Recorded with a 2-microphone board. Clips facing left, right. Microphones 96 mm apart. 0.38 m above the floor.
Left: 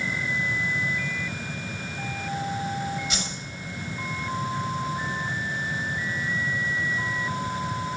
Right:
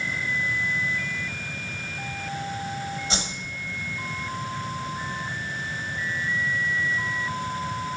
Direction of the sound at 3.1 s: 30° right (ahead or behind).